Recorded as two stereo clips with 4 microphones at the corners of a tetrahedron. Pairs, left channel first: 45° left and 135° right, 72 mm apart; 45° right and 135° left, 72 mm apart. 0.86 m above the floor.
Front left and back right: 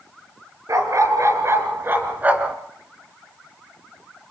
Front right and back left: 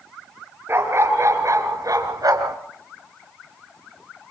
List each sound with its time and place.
0.7 s a dog barking: 170° right, 4 m; by 2.6 s 155° left, 3 m